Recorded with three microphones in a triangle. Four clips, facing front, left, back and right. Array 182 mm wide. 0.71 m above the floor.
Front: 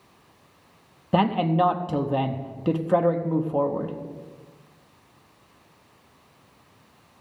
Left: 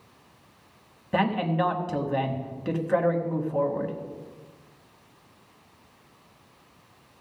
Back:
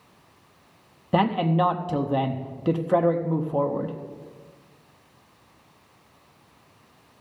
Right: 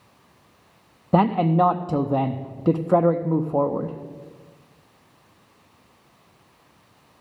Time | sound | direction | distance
1.1 | a man speaking | 90° right | 0.7 m